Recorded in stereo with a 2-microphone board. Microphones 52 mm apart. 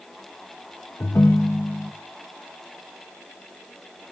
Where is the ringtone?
55° left (ahead or behind), 0.7 m.